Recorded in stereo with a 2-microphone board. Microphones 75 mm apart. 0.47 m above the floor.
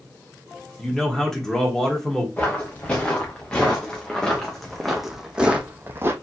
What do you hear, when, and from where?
0.8 s a man speaking: 5° left (ahead or behind), 1.3 m
2.4 s footsteps: 20° left (ahead or behind), 2.5 m; by 6.1 s 35° right (ahead or behind), 0.8 m